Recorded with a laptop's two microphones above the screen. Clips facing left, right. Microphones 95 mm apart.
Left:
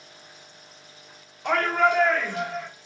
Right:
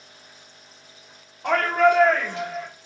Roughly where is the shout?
Right.